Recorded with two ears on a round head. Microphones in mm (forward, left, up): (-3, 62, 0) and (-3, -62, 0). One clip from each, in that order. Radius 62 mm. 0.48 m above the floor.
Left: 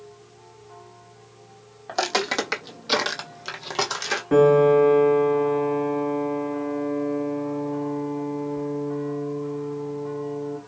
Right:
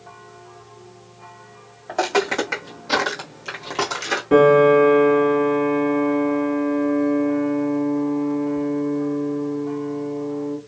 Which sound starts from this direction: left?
Footsteps, at 1.9 s.